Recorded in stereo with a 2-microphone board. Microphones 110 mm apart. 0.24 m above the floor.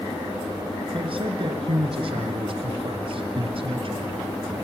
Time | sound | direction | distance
0.9 | a man speaking | 55° right (ahead or behind) | 3 m